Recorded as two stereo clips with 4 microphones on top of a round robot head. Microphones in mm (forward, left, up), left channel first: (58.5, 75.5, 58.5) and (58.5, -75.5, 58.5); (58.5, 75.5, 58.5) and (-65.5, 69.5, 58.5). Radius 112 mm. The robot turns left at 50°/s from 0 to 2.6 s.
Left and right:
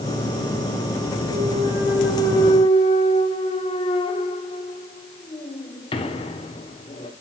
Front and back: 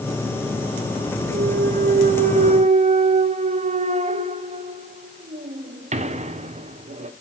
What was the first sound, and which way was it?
A clunk, 145° right.